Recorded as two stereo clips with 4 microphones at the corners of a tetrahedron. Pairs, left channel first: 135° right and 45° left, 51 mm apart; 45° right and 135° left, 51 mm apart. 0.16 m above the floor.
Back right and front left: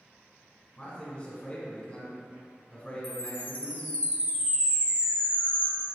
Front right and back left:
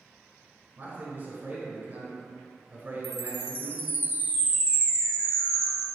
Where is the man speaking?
165° left, 2.0 m.